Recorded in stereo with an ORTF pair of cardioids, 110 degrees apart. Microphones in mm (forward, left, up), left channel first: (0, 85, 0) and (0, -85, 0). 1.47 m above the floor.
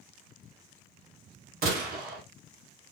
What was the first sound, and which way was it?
A gunshot, 70° right.